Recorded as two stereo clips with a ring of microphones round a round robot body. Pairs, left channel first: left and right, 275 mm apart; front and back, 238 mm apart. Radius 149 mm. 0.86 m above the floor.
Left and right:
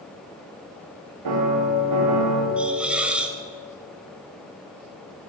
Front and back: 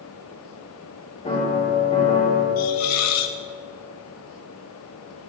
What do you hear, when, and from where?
1.2 s a piano: 70° right, 3.5 m
2.6 s a hiss: 5° right, 1.1 m